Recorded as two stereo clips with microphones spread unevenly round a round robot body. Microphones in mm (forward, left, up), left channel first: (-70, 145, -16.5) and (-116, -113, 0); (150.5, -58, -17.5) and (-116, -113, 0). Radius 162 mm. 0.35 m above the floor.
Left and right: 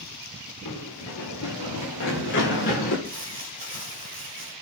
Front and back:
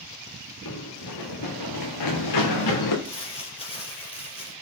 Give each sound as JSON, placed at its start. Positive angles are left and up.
{"t": 0.7, "sound": "running footsteps", "azimuth_deg": 45, "distance_m": 2.5}
{"t": 3.0, "sound": "crumpling", "azimuth_deg": -55, "distance_m": 4.5}